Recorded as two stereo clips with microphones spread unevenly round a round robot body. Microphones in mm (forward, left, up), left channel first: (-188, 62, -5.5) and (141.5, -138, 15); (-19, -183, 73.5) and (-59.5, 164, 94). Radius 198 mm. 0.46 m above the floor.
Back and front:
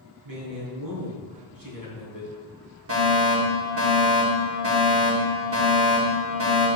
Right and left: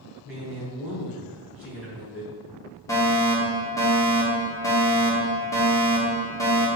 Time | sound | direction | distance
0.2 | a man speaking | 10° left | 3.5 m
2.9 | a fire alarm | 15° right | 2 m